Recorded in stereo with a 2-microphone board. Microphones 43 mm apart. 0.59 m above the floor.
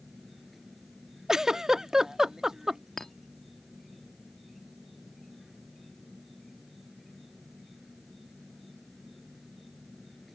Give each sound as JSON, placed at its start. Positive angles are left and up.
{"t": 0.0, "sound": "an insect", "side_deg": -5}
{"t": 1.3, "sound": "a giggle", "side_deg": -15}
{"t": 3.0, "sound": "a clink", "side_deg": 10}